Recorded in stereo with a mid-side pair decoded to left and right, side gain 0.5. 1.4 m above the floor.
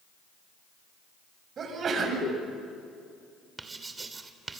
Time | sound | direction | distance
1.6 | a sneeze | 50° right | 8 m
3.6 | writing | 30° right | 2.5 m